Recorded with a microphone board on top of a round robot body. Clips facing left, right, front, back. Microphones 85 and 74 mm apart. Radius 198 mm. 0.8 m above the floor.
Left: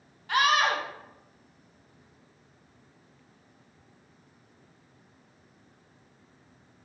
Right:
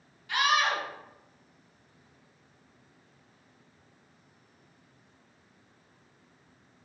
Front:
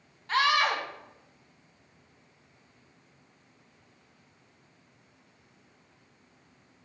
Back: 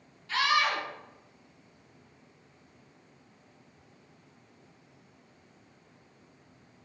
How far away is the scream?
About 1.5 m.